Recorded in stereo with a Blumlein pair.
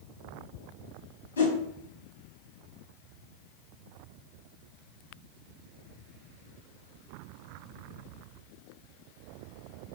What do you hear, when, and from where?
1.4 s a whoosh: 65° left, 1.1 m